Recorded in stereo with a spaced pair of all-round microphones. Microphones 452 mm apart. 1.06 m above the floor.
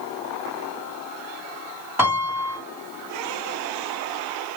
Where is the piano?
5° right (ahead or behind), 1.9 m.